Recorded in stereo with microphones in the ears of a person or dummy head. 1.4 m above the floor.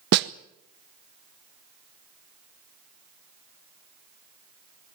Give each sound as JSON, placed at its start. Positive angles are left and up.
{"t": 0.1, "sound": "a snare drum", "side_deg": -65, "distance_m": 0.7}